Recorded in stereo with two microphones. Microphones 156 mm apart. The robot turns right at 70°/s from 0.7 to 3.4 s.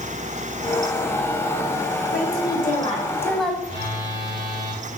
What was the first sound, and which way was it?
A woman speaking, 90° left.